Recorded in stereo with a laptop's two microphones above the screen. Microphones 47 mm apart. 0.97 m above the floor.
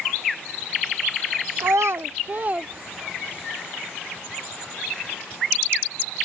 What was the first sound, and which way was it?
A child speaking, 70° right (ahead or behind).